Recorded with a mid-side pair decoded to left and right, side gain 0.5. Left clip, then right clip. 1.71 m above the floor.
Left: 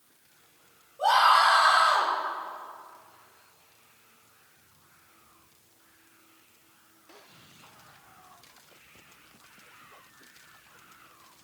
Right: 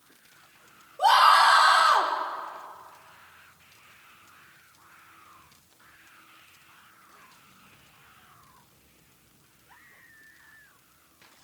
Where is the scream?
45° right, 6.5 m.